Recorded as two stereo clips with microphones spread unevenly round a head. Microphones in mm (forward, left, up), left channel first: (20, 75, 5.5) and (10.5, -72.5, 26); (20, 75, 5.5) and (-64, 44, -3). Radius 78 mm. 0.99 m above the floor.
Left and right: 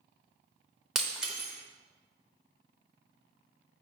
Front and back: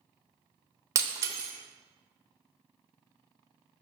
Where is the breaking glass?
160° right, 0.7 m.